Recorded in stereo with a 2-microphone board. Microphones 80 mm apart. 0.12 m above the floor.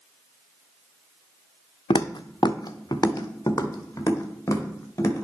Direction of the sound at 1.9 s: 85° left.